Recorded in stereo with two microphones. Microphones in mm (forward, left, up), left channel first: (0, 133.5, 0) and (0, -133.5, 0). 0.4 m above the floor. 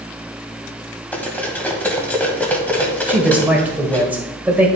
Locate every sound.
1.1 s cutlery clinking: 5° left (ahead or behind), 1.4 m
3.1 s a man speaking: 5° right (ahead or behind), 1.3 m